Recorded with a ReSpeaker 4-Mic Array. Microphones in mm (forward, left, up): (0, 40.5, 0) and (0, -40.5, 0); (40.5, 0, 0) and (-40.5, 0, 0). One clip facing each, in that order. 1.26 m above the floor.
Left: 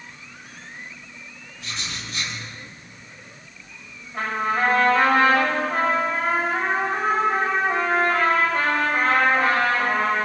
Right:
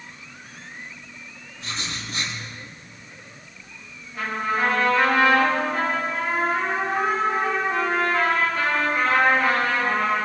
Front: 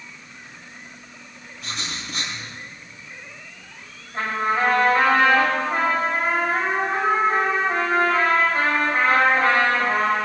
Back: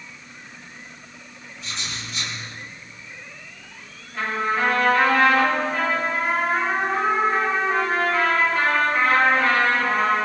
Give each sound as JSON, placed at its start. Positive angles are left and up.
{"t": 1.6, "sound": "writing", "azimuth_deg": -35, "distance_m": 7.5}
{"t": 4.1, "sound": "a trumpet", "azimuth_deg": 55, "distance_m": 6.5}